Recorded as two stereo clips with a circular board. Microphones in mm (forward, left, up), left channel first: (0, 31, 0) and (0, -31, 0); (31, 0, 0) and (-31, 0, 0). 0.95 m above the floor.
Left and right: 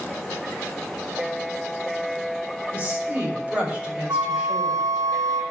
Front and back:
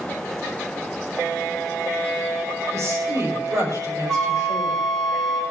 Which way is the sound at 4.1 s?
85° right.